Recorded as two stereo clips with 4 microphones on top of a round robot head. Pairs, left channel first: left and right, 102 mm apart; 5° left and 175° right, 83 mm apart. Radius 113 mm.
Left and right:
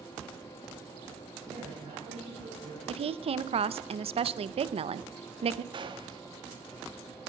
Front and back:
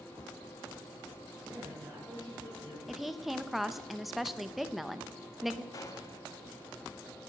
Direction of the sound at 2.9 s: 85° right.